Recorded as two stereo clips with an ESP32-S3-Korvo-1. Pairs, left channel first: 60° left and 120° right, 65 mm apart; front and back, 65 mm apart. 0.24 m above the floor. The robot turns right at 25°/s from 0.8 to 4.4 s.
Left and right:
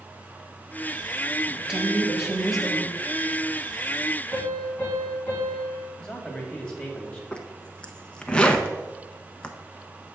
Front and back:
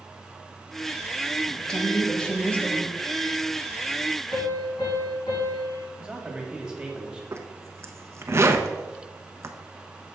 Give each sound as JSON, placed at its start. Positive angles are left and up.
{"t": 1.5, "sound": "a woman speaking", "azimuth_deg": -65, "distance_m": 1.0}
{"t": 4.3, "sound": "a piano", "azimuth_deg": -5, "distance_m": 3.5}
{"t": 6.0, "sound": "a man speaking", "azimuth_deg": 125, "distance_m": 1.3}
{"t": 7.3, "sound": "a zipper", "azimuth_deg": 135, "distance_m": 0.6}